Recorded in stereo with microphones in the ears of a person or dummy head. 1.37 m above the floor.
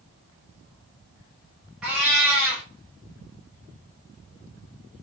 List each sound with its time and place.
1.8 s a cat meowing: centre (ahead or behind), 0.7 m